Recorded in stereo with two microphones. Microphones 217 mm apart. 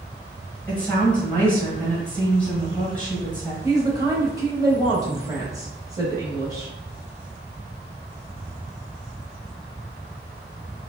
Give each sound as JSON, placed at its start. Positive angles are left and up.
{"t": 0.7, "sound": "a woman speaking", "side_deg": 5, "distance_m": 1.5}
{"t": 3.6, "sound": "a woman speaking", "side_deg": -15, "distance_m": 1.2}